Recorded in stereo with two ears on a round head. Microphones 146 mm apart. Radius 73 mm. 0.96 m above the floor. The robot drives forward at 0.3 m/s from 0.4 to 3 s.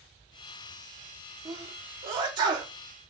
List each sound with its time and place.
1.4 s a sneeze: 20° right (ahead or behind), 1.7 m; by 2.7 s 30° right (ahead or behind), 1.4 m